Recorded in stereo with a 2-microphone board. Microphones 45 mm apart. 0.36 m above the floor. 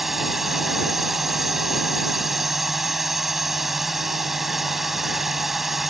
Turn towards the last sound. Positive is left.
turn(degrees=-5)  # may be behind; listen again after turning